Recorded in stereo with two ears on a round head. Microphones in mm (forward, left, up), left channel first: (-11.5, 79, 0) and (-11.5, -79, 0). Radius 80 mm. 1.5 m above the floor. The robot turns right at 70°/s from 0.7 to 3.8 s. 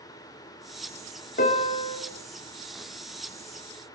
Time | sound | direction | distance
1.4 | a piano | 95° left | 1.4 m